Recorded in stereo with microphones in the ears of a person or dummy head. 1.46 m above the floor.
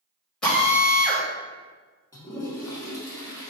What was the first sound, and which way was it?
A drill, centre (ahead or behind).